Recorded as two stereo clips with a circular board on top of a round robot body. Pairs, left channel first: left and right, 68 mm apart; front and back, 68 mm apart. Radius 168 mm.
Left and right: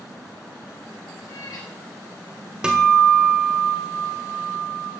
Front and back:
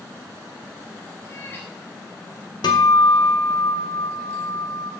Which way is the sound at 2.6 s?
10° right.